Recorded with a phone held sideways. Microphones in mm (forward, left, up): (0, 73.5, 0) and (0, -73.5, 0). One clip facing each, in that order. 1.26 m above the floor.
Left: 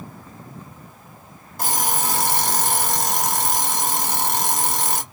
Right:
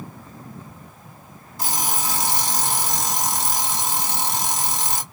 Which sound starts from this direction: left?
An alarm clock, at 1.6 s.